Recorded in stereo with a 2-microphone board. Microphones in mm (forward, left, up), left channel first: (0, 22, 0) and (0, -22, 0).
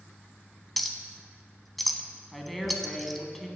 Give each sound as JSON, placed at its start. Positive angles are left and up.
{"t": 0.8, "sound": "a clink", "side_deg": 0, "distance_m": 0.7}
{"t": 2.3, "sound": "a woman speaking", "side_deg": 0, "distance_m": 1.2}